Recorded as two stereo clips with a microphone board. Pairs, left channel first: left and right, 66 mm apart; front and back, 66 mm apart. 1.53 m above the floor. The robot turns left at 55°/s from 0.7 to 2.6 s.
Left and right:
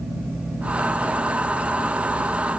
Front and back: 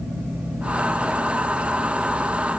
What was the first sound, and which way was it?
Only background noise.